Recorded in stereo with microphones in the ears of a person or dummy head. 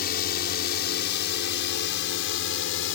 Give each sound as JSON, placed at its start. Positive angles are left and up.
{"t": 0.0, "sound": "a drone", "side_deg": 60}